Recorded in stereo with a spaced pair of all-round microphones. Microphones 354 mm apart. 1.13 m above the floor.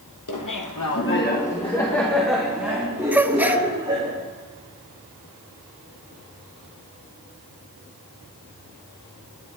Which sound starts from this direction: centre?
A gasp, at 3.1 s.